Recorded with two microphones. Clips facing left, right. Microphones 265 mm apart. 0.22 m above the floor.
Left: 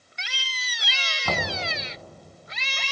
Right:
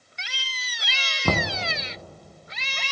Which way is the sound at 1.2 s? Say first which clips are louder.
Right 4 dB; 50° right (ahead or behind).